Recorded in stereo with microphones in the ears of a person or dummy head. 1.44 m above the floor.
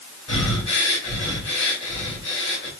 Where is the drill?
No drill in this recording.